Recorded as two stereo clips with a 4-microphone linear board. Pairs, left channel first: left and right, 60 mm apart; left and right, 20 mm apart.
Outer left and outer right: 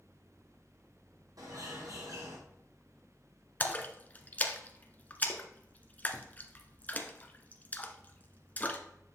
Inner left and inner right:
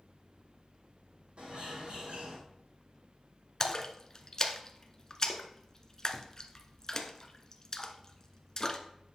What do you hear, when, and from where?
1.4 s a bird: 80° right, 4 m
3.6 s a splash: 30° left (ahead or behind), 0.9 m